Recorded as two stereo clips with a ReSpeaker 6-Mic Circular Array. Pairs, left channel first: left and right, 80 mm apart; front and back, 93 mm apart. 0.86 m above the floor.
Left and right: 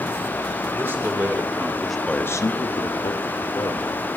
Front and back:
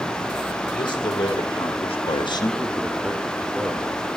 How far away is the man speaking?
About 2.5 m.